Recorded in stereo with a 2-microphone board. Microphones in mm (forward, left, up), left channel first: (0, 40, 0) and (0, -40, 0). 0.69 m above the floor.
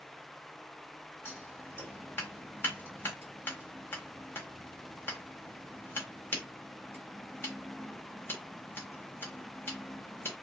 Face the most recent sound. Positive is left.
turn(degrees=25)  # may be behind; listen again after turning